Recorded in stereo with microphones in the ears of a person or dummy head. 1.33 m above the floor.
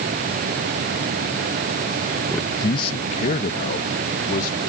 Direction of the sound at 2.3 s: Centre (ahead or behind).